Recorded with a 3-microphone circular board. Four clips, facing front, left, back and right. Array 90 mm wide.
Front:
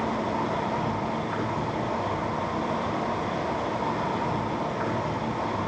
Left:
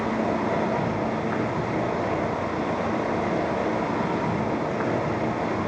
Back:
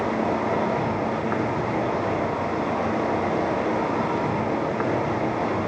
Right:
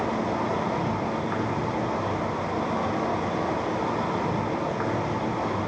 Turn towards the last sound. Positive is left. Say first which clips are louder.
# left 2 dB, back 4 dB
turn(degrees=-170)